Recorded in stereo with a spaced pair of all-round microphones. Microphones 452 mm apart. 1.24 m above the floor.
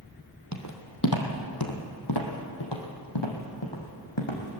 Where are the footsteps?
35° left (ahead or behind), 3 m; by 4.6 s 75° left (ahead or behind), 4 m.